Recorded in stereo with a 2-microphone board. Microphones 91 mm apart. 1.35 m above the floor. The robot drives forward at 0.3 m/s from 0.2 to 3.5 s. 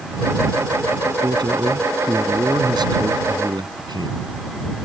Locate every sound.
1.2 s a man speaking: 55° right (ahead or behind)